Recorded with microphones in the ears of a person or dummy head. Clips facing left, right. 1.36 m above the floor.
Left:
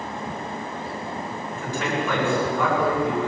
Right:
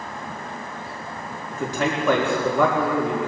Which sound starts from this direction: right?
A man speaking, at 1.5 s.